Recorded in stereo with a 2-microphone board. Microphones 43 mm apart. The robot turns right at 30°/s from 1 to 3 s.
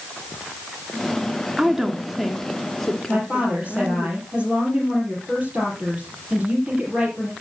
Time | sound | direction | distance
1.6 | a woman speaking | 25° right | 2 m
3.1 | a woman speaking | 30° right (ahead or behind) | 4.5 m